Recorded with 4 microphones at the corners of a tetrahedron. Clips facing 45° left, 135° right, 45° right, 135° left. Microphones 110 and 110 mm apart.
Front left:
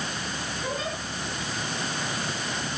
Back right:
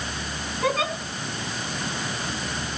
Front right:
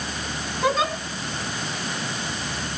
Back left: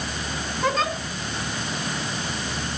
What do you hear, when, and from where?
0.6 s a giggle: 130° right, 4.5 m